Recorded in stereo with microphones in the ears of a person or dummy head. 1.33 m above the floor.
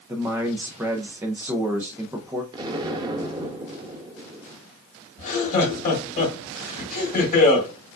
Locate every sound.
0.1 s a man speaking: 10° right (ahead or behind), 0.5 m
2.5 s an explosion: 20° right (ahead or behind), 0.6 m
5.2 s laughter: 30° left (ahead or behind), 2.5 m